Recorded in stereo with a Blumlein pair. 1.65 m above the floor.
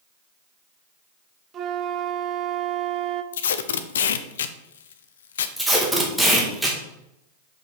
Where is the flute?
30° right, 0.7 m.